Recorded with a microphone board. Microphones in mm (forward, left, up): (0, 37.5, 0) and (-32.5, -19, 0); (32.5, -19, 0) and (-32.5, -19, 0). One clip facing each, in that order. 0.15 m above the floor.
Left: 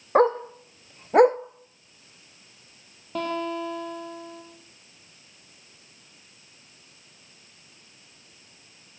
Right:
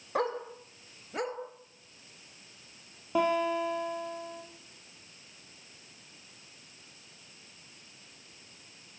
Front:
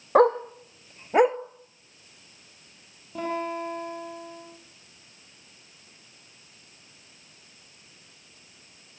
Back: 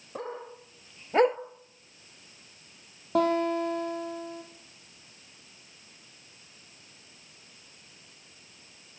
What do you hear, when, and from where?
0.1 s a dog barking: 15° left, 1.6 m; by 1.4 s 100° left, 0.7 m
3.1 s a guitar: 165° left, 5 m